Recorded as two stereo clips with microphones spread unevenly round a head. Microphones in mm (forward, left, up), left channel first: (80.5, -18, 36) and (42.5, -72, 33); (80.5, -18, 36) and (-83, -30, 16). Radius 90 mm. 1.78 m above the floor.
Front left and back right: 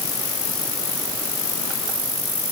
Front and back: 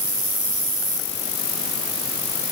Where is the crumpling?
No crumpling in this recording.